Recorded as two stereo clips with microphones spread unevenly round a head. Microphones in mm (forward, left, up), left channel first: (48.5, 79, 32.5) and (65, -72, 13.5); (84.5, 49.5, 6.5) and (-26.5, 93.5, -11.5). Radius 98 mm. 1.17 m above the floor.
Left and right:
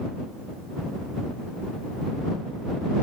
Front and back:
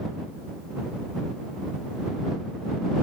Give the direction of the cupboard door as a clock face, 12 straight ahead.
I don't hear a cupboard door.